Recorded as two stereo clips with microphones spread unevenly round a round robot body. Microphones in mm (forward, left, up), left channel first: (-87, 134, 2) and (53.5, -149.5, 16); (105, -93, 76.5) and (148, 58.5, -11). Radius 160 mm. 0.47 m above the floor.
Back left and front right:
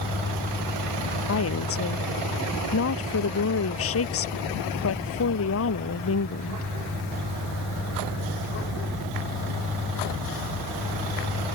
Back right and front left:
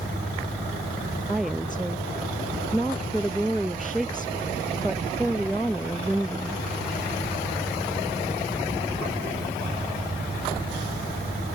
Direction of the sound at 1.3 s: 165° left.